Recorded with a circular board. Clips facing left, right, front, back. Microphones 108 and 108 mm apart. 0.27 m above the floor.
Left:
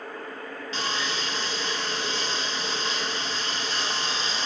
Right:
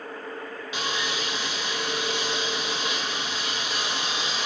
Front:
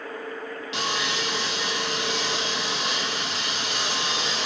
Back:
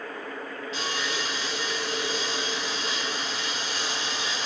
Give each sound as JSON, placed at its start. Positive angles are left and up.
{"t": 0.7, "sound": "sawing", "azimuth_deg": -15, "distance_m": 1.5}